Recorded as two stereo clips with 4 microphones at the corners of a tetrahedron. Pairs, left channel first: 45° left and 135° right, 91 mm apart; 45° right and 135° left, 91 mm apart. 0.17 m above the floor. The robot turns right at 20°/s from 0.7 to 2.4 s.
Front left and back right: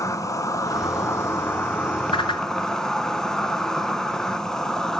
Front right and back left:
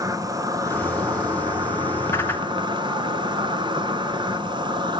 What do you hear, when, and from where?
0.0 s an insect: 95° left, 0.8 m; by 5.0 s 130° left, 0.8 m
2.1 s a whoosh: 20° left, 0.9 m; by 2.5 s 25° left, 0.9 m